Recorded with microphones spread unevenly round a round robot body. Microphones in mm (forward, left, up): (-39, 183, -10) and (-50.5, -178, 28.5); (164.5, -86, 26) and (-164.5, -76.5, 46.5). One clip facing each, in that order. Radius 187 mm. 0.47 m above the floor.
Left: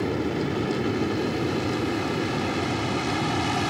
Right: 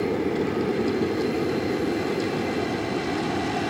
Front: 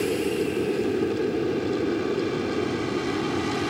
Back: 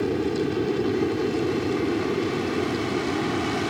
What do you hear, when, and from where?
0.0 s an aircraft: 115° left; by 3.7 s 85° left